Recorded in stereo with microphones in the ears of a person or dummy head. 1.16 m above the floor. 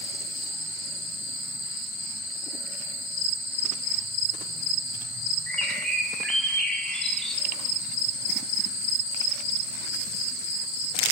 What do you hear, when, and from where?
5.5 s a bird: 5° left (ahead or behind), 1.5 m